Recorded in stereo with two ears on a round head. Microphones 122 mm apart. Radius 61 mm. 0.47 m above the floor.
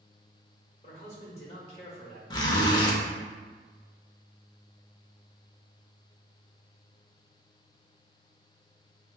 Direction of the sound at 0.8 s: 50° left (ahead or behind).